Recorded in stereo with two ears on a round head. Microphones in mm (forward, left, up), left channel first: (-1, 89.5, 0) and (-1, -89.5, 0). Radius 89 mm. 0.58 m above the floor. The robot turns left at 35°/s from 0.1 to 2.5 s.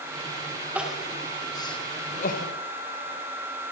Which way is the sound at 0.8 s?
5° right (ahead or behind).